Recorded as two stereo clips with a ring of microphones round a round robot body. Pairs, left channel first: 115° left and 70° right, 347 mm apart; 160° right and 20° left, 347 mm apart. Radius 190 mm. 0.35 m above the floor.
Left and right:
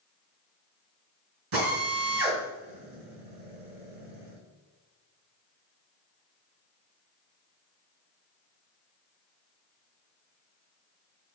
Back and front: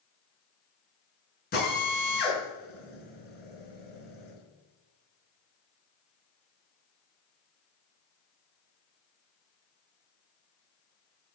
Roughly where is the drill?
Right.